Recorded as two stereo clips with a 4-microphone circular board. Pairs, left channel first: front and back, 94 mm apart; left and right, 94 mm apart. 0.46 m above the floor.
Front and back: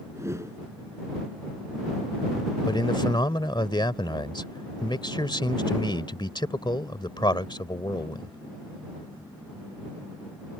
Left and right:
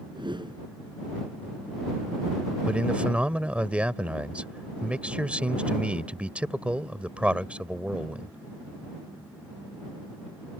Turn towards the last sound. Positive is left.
turn(degrees=-15)